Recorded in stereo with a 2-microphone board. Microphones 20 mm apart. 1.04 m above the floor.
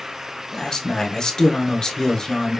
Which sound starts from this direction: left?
A man speaking, at 0.5 s.